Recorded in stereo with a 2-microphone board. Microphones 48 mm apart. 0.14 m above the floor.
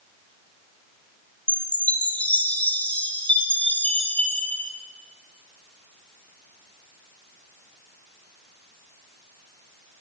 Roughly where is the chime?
Left.